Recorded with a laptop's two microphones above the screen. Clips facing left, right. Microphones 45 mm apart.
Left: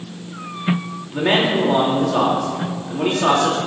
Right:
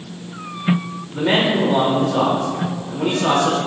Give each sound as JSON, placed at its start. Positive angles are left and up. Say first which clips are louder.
{"t": 1.1, "sound": "a man speaking", "louder": "even", "side_deg": 75, "distance_m": 3.0}